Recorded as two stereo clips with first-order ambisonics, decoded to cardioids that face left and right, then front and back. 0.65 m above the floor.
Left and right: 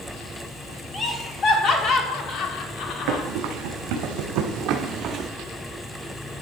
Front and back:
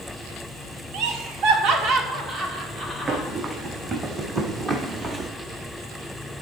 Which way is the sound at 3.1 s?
110° right.